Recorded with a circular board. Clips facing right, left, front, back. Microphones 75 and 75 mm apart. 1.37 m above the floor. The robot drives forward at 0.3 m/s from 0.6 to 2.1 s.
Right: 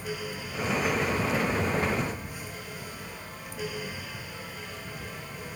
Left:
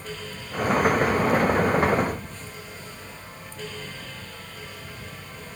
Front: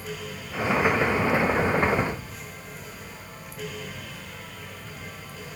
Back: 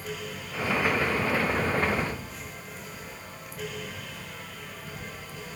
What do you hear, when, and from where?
Only background noise.